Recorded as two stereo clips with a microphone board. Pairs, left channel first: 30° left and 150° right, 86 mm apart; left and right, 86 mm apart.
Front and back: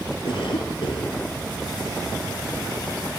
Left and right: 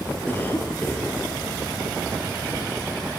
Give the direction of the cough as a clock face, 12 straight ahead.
11 o'clock.